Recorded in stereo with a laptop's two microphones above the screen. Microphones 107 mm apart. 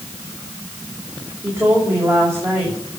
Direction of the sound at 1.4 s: 25° right (ahead or behind).